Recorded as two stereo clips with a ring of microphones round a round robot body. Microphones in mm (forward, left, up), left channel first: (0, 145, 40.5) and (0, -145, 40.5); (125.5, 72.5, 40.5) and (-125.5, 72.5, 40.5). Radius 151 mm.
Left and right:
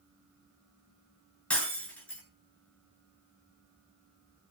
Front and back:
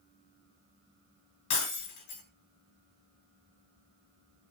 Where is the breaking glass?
5° left, 6 m.